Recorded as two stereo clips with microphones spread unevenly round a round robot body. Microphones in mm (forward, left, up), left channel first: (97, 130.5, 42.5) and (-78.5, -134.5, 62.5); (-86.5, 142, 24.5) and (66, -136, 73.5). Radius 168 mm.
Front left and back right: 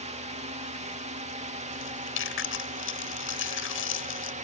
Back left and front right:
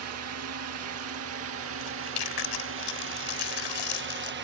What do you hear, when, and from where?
0.0 s a drone: 60° right; by 4.4 s 80° right
1.8 s chewing: 110° left